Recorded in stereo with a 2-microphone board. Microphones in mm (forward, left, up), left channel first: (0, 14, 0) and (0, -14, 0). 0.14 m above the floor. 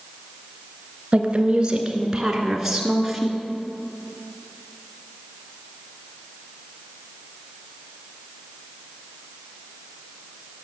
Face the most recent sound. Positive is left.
turn(degrees=-5)  # may be behind; listen again after turning